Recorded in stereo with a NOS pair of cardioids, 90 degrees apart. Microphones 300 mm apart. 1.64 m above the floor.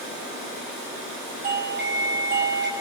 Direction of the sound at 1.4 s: 35° right.